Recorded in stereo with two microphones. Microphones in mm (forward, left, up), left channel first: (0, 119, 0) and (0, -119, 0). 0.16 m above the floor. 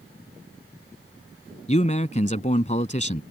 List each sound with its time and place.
1.7 s a man speaking: 30° left (ahead or behind)